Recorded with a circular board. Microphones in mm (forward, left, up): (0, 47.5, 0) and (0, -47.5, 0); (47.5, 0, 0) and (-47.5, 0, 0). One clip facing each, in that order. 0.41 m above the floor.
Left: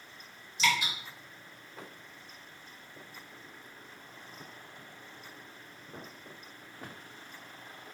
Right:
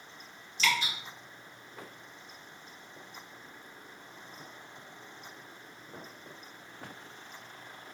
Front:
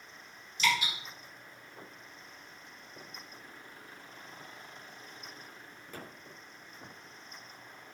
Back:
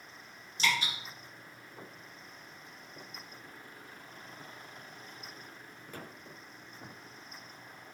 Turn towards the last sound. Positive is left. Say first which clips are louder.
# left 1 dB, front 2 dB
turn(degrees=150)